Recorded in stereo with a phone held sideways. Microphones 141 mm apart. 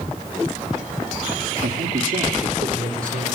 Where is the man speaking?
85° right, 2.5 m; by 3.3 s 75° right (ahead or behind), 4 m.